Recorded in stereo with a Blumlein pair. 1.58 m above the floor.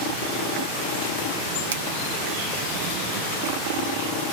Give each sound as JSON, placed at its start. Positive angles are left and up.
{"t": 1.7, "sound": "a finger snap", "azimuth_deg": -65, "distance_m": 1.0}